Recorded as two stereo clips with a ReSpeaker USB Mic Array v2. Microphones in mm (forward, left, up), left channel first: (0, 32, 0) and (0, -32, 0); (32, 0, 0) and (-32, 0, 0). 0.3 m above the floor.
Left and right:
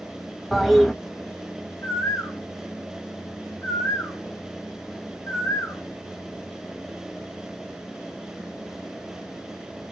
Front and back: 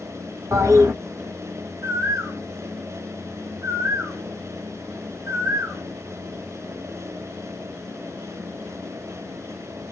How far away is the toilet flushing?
About 0.6 m.